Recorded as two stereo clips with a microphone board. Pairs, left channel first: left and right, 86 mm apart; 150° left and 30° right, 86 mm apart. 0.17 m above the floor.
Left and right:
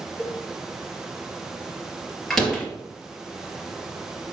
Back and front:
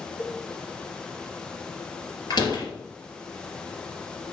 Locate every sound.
0.2 s a cowbell: 160° right, 2.5 m
2.3 s a door slam: 175° left, 3 m